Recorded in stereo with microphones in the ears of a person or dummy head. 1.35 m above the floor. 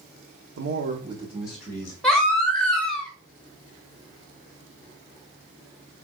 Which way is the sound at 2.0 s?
Centre (ahead or behind).